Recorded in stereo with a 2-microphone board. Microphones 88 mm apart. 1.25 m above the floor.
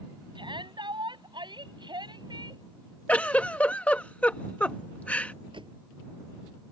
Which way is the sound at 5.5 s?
70° right (ahead or behind).